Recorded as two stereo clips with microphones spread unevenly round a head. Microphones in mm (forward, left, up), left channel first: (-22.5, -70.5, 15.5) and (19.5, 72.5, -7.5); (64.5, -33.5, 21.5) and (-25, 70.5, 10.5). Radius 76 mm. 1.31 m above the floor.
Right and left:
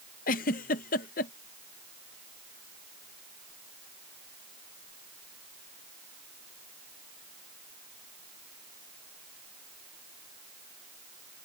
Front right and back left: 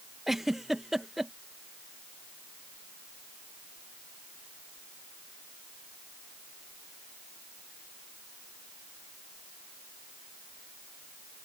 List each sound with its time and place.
0.3 s a giggle: 140° right